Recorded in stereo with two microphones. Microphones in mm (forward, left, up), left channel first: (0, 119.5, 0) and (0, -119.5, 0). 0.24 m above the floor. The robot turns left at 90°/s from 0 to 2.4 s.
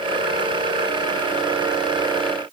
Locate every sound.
Only background noise.